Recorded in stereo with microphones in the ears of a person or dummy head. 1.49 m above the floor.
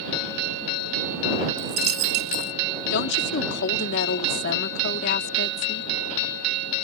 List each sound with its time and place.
1.6 s a dropped coin: 50° right (ahead or behind)
2.9 s a woman speaking: 70° left (ahead or behind)